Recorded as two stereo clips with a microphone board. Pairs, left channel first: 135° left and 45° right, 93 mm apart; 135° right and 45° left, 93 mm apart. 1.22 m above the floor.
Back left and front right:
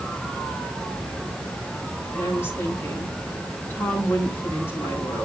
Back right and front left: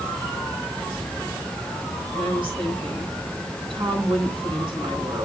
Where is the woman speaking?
70° left, 8 m.